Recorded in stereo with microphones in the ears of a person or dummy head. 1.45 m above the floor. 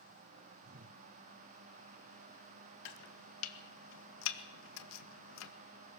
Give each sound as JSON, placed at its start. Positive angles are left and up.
{"t": 0.6, "sound": "a whoosh", "side_deg": -45, "distance_m": 1.1}
{"t": 2.9, "sound": "chopping", "side_deg": 75, "distance_m": 1.9}